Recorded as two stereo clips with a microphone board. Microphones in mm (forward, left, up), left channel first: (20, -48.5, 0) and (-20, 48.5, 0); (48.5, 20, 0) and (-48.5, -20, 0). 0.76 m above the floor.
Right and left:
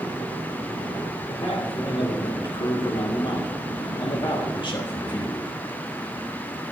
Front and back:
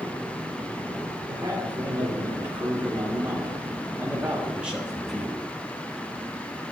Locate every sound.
1.3 s a man speaking: 100° right, 3 m; by 5.5 s 60° right, 0.9 m